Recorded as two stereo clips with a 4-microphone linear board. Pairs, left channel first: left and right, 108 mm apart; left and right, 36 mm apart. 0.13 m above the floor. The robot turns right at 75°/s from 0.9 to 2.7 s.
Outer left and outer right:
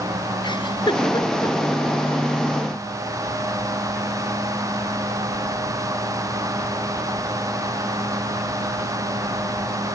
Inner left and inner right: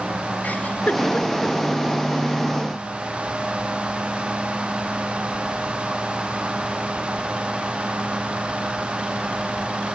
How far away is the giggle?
About 1.8 m.